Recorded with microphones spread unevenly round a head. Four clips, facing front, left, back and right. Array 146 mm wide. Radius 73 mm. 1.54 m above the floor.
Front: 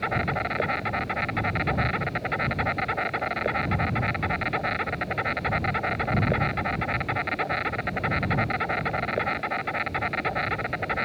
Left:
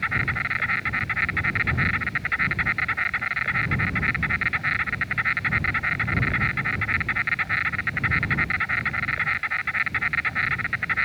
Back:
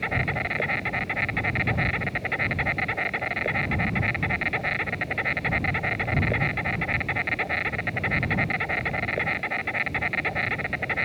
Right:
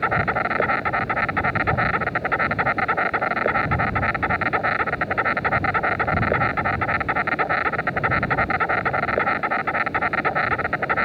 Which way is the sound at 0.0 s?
90° right.